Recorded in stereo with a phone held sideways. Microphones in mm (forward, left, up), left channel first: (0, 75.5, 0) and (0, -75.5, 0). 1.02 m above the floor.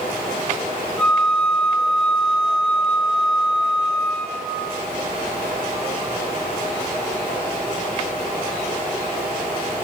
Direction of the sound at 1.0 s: 5° left (ahead or behind).